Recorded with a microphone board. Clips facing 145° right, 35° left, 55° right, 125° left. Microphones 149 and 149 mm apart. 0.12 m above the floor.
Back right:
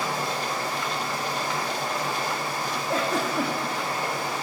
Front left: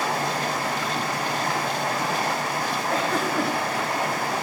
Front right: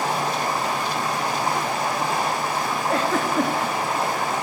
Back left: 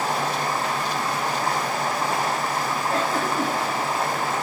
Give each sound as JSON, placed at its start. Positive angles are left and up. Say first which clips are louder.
{"t": 0.0, "sound": "running water", "louder": "front left 3 dB, front right 1 dB", "azimuth_deg": 20, "distance_m": 1.8}
{"t": 2.9, "sound": "a giggle", "louder": "even, front right 3 dB", "azimuth_deg": -60, "distance_m": 2.5}